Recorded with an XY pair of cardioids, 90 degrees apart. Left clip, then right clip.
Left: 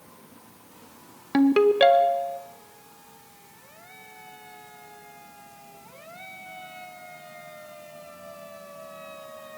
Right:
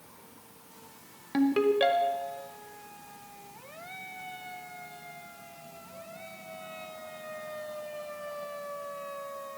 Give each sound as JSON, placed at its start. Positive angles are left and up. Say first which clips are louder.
{"t": 1.3, "sound": "a ringtone", "louder": "left 6 dB", "azimuth_deg": 55, "distance_m": 0.7}